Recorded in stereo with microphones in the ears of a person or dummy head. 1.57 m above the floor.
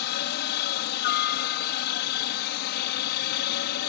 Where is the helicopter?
65° left (ahead or behind).